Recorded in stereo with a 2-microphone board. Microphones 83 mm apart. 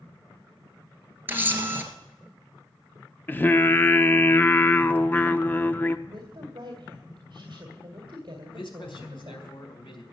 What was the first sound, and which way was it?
A camera shutter, 25° right (ahead or behind).